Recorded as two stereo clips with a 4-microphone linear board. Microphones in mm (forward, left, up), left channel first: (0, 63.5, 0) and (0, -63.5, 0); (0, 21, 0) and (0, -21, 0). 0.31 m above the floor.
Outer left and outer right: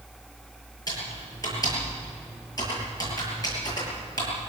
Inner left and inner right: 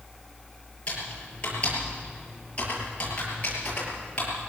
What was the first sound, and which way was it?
Typing on a keyboard, 30° left (ahead or behind).